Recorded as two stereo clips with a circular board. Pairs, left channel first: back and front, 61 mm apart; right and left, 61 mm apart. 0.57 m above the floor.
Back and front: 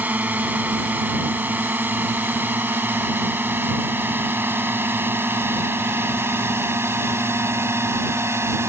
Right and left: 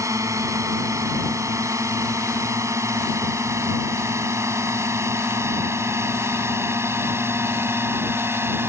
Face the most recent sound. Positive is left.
turn(degrees=40)